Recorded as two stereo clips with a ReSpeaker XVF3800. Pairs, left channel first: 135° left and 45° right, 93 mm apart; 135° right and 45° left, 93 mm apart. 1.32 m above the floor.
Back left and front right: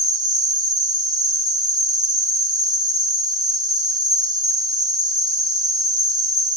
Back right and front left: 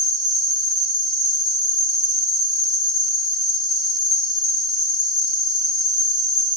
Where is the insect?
Straight ahead, 3 m.